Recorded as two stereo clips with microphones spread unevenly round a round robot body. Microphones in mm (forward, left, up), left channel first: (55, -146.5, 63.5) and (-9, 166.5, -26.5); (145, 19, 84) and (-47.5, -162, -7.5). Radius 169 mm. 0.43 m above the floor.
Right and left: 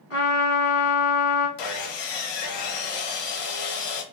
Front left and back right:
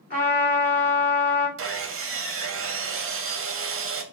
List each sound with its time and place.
0.1 s a trumpet: 30° right, 1.6 m
1.6 s sawing: 95° right, 0.7 m